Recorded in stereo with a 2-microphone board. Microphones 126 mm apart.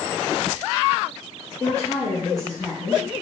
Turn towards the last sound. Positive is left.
turn(degrees=75)  # may be behind; listen again after turning